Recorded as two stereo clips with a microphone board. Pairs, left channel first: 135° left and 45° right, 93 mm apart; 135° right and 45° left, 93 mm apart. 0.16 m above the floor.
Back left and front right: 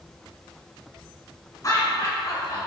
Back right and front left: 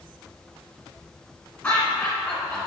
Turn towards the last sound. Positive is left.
turn(degrees=155)